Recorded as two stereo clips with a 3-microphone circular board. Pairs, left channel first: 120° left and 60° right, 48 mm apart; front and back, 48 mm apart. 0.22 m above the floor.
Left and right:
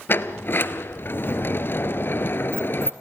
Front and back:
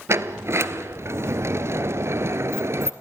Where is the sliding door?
160° left, 1.0 m.